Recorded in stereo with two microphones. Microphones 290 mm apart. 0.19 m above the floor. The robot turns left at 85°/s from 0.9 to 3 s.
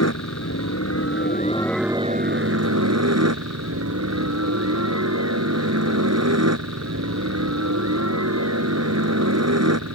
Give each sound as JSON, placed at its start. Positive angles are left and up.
{"t": 0.0, "sound": "a helicopter", "azimuth_deg": 75}